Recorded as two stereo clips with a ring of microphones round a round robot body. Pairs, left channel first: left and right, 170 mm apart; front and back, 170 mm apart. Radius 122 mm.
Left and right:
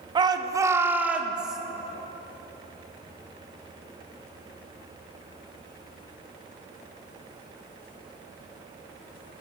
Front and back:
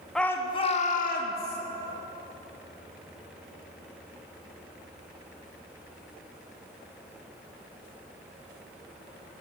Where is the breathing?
I don't hear breathing.